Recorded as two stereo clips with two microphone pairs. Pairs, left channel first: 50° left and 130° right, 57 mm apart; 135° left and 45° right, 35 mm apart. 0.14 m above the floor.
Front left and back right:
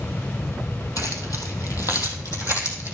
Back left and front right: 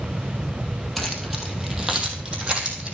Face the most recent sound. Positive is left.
turn(degrees=15)